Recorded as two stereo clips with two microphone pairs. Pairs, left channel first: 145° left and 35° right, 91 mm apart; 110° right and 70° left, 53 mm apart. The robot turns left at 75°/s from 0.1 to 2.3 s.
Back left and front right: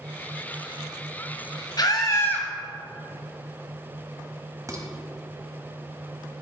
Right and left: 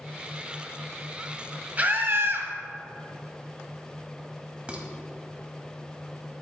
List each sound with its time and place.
1.8 s a scream: 125° left, 1.6 m; by 2.5 s 85° left, 1.6 m
4.7 s dishes clattering: 5° left, 1.2 m